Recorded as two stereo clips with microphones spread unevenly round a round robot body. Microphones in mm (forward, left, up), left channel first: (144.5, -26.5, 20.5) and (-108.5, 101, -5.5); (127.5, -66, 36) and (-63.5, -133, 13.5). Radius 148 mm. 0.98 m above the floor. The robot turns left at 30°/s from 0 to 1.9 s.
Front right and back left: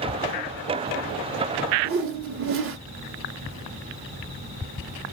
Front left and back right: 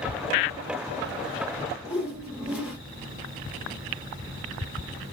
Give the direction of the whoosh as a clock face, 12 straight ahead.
8 o'clock.